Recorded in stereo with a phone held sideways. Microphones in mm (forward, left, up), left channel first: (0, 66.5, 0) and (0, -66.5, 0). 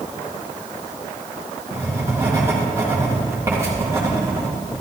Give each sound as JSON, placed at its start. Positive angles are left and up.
{"t": 1.7, "sound": "writing", "side_deg": -20, "distance_m": 2.5}